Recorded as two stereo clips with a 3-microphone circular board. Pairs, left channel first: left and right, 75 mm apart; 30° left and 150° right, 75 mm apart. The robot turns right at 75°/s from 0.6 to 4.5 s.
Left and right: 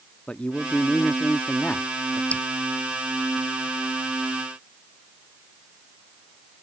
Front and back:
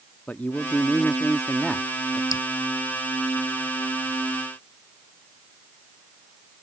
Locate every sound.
0.3 s a man speaking: 45° left; by 2.2 s 165° left
2.3 s dripping: 20° left; by 2.4 s 30° left